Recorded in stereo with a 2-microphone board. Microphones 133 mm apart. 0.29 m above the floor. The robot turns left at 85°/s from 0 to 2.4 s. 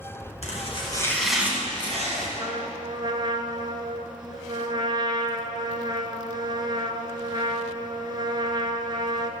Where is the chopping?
75° left, 2.5 m; by 2.3 s 85° right, 2.5 m.